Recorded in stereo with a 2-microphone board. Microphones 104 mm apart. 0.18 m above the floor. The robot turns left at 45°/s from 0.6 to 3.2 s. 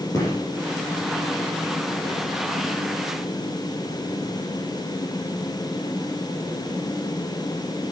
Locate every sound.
0.1 s a gunshot: 30° left (ahead or behind), 5.5 m